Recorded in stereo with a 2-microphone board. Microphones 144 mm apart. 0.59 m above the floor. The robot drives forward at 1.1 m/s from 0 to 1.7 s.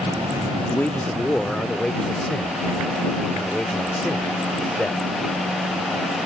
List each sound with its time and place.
0.7 s a man speaking: 15° left (ahead or behind); by 5.0 s 5° left (ahead or behind)